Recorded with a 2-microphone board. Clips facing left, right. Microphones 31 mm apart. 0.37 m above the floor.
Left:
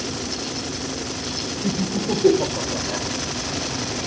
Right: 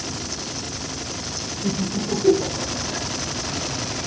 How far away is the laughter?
About 1.1 m.